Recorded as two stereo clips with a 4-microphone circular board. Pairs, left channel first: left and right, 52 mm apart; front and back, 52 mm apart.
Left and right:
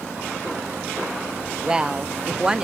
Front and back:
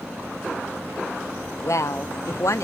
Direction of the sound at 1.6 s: 15° right.